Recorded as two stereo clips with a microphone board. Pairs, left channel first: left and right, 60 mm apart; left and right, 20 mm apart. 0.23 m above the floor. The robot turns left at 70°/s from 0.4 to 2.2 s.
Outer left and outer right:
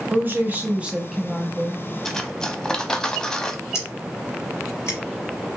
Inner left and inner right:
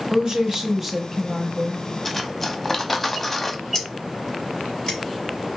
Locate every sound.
0.1 s a woman speaking: 120° right, 1.2 m; by 1.9 s 140° left, 1.2 m
2.0 s cutlery clinking: 5° left (ahead or behind), 0.6 m; by 3.6 s 10° left (ahead or behind), 0.6 m
3.7 s scissors: 50° left (ahead or behind), 3.5 m